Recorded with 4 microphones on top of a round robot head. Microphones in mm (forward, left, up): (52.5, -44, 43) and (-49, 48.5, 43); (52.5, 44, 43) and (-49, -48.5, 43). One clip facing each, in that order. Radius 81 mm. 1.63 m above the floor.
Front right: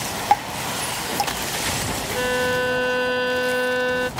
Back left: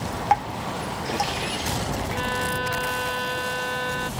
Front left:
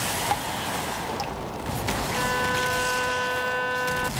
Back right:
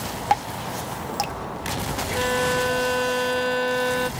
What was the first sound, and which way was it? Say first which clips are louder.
Dripping: front right 2 dB, back right 7 dB; 105° right.